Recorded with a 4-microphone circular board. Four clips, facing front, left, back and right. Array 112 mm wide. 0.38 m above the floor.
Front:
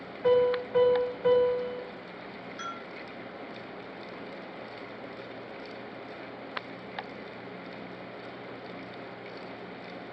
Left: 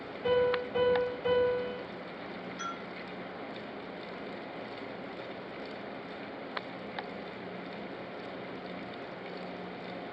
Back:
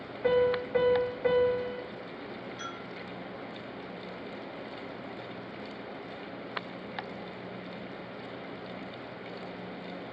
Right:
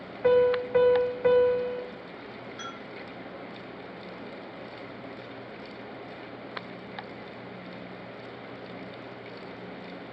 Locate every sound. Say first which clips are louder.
0.2 s a piano: right 6 dB, front 2 dB; 95° right, 1.1 m
2.6 s a bell: left 2 dB, front 1 dB; 30° right, 3 m